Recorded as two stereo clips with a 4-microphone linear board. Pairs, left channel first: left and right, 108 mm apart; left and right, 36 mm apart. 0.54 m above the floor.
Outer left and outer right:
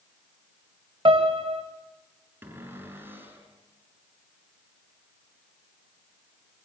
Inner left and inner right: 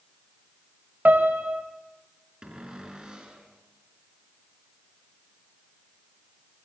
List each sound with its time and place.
1.1 s a piano: 60° right (ahead or behind), 2 m
2.4 s a cupboard door: 20° right (ahead or behind), 4.5 m